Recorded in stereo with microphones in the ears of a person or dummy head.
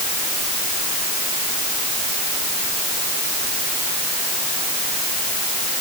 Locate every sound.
Only background noise.